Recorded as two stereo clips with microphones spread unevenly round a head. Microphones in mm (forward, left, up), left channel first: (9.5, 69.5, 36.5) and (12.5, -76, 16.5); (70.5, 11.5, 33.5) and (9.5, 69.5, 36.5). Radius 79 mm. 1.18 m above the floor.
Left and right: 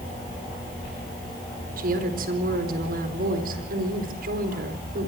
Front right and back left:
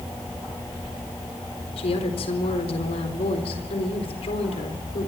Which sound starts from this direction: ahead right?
A woman speaking, at 1.8 s.